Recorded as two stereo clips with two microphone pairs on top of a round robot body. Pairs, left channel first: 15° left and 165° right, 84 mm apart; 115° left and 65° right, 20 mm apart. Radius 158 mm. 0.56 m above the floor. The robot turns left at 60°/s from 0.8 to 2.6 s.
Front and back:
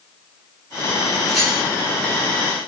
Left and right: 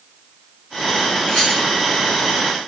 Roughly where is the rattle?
Behind left.